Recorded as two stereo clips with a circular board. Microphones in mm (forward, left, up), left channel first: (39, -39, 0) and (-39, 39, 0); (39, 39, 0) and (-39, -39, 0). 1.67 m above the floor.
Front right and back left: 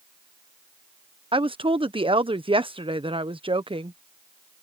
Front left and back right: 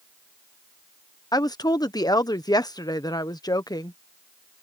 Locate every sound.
1.3 s a woman speaking: 100° left